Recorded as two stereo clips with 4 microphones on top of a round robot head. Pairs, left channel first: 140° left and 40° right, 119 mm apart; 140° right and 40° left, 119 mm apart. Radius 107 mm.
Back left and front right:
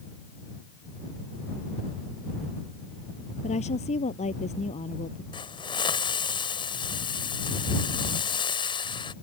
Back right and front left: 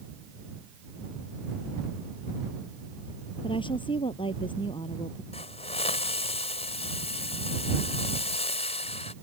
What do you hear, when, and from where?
3.4 s a woman speaking: 170° left
5.3 s a hiss: 170° right